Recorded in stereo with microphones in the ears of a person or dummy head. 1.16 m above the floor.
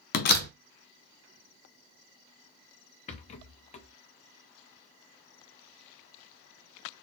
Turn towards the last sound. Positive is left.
turn(degrees=40)  # may be behind; listen again after turning